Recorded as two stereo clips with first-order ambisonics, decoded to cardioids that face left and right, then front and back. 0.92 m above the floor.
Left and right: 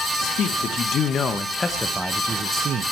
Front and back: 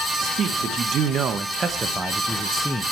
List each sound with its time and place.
0.2 s a man speaking: 130° left, 1.3 m; by 2.9 s 80° right, 0.8 m